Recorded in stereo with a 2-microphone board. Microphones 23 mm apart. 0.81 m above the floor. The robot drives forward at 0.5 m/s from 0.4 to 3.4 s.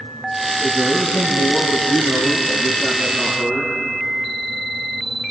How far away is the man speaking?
About 6 m.